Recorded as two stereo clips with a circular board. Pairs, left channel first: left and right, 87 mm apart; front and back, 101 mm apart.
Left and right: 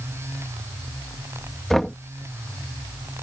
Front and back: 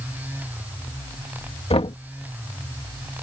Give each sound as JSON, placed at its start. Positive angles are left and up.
{"t": 1.7, "sound": "knocking", "azimuth_deg": 5}